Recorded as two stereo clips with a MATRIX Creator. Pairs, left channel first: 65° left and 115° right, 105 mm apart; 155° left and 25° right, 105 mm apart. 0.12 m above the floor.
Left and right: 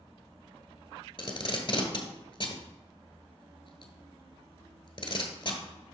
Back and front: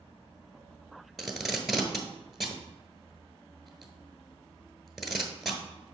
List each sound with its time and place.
1.2 s tape being pulled: 65° left, 1.1 m